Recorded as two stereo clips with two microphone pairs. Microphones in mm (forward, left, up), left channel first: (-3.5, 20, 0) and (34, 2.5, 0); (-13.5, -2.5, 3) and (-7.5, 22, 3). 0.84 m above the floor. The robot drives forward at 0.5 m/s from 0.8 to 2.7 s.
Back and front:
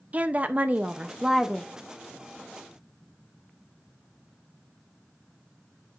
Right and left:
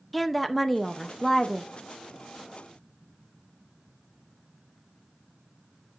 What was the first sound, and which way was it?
A woman speaking, 20° right.